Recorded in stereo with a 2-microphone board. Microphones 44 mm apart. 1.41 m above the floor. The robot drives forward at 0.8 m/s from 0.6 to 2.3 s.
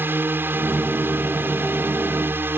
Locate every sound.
0.0 s a drone: 55° right (ahead or behind)